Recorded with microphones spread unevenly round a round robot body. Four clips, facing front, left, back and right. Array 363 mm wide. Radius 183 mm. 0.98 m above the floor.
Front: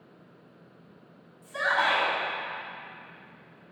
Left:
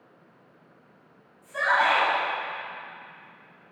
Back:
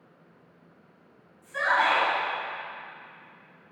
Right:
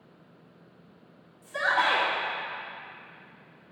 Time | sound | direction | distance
1.4 | a shout | 115° right | 2.5 m